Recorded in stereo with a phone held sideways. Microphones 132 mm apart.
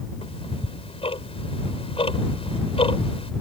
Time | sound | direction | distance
0.2 | ticking | 45° left (ahead or behind) | ?